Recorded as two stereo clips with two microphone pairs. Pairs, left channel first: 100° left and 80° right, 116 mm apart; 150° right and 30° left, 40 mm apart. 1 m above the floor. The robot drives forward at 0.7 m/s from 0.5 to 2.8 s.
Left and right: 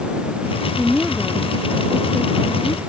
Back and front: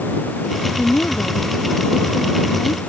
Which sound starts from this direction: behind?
A woman speaking, at 0.8 s.